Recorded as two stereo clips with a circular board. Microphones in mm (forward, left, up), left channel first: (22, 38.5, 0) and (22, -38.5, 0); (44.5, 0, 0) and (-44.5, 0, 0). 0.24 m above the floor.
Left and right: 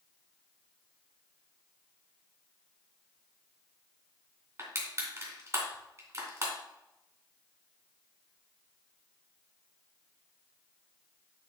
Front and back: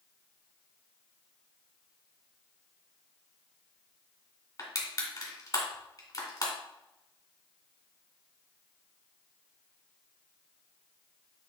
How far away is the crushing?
About 2.5 m.